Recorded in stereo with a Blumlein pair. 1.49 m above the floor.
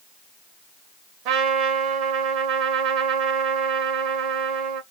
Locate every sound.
1.2 s a trumpet: 35° right, 0.9 m